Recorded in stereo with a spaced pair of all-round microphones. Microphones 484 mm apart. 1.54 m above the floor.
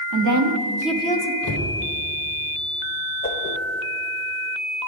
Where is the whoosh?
25° left (ahead or behind), 0.9 m.